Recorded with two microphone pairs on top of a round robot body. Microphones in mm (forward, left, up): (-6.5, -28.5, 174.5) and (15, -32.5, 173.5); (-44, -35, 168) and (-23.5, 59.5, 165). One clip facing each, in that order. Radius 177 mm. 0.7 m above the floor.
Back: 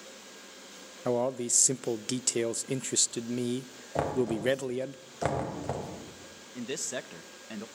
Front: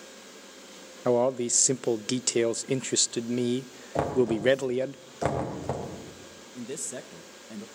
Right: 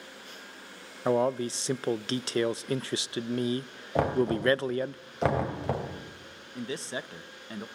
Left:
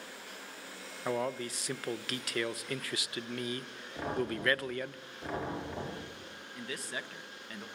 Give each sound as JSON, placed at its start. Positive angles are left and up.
{"t": 1.1, "sound": "a man speaking", "azimuth_deg": -65, "distance_m": 0.6}
{"t": 4.0, "sound": "knocking", "azimuth_deg": -100, "distance_m": 4.5}
{"t": 6.5, "sound": "a man speaking", "azimuth_deg": -155, "distance_m": 1.2}